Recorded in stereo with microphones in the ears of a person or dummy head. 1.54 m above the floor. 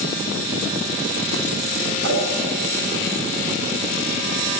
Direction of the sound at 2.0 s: 70° right (ahead or behind).